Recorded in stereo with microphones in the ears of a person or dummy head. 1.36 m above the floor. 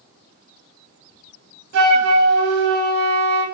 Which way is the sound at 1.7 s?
60° right (ahead or behind).